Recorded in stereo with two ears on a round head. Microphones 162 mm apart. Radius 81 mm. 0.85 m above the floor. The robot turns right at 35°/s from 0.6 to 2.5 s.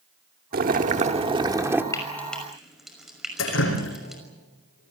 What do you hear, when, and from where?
0.5 s boiling: 55° right, 1.3 m; by 1.8 s 10° right, 1.3 m
1.9 s frying: 20° left (ahead or behind), 5.5 m; by 4.2 s centre (ahead or behind), 5.5 m
3.4 s dripping: 80° left, 6.5 m